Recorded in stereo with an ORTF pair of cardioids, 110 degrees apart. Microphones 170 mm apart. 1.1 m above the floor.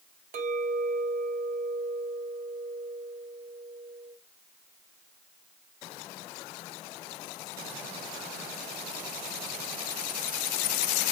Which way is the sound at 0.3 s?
45° right.